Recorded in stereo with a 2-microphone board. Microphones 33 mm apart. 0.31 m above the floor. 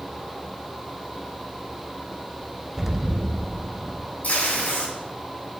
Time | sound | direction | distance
2.8 | an explosion | 15° right (ahead or behind) | 0.7 m
4.2 | tape being pulled | 65° left (ahead or behind) | 3.5 m